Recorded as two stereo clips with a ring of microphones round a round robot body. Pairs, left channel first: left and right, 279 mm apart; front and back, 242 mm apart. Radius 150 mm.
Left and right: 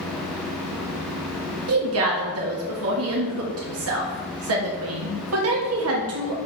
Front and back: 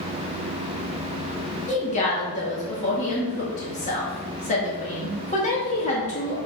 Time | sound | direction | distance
1.7 | a woman speaking | 60° right | 1.7 m